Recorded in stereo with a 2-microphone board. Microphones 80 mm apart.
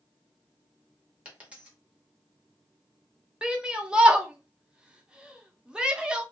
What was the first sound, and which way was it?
A dropped coin, 15° right (ahead or behind).